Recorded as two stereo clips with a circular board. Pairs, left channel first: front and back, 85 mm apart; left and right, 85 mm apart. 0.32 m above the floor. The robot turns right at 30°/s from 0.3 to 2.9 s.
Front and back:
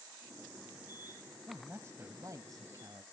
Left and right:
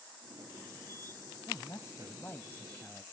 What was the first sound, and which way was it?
A man speaking, 120° left.